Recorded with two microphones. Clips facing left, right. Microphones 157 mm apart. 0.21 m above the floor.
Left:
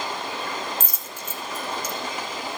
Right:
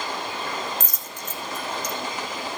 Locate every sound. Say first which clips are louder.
0.8 s a dropped coin: even; 10° left (ahead or behind), 0.9 m